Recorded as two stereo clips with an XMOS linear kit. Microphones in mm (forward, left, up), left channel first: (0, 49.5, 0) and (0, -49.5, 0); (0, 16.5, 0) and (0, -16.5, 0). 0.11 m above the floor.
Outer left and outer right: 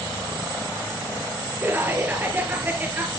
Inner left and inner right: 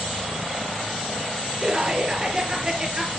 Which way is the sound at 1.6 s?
20° right (ahead or behind).